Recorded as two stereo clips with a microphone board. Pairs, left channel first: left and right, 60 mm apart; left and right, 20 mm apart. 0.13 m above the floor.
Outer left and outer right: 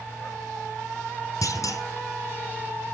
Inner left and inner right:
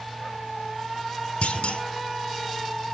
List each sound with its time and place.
1.4 s a clunk: 60° left (ahead or behind), 1.7 m